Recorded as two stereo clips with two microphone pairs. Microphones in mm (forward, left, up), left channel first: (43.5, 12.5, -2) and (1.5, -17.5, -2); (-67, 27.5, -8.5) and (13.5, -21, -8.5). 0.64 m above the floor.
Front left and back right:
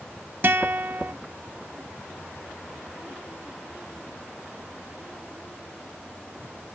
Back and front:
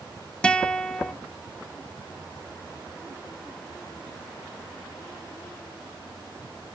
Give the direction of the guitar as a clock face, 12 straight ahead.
5 o'clock.